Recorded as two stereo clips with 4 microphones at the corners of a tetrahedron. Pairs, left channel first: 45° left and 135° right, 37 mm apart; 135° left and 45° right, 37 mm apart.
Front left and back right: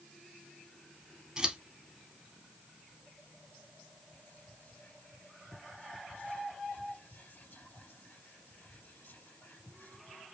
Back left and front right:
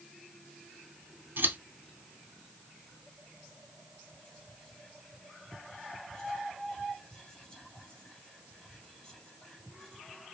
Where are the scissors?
65° right, 3 m.